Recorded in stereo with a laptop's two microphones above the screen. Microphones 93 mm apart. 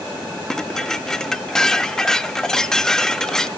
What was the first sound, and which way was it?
Dishes clattering, 5° left (ahead or behind).